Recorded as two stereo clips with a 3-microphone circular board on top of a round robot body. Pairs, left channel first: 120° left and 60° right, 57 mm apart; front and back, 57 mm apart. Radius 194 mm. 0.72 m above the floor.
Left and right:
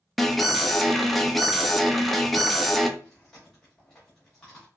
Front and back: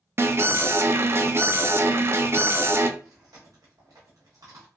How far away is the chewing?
About 0.9 m.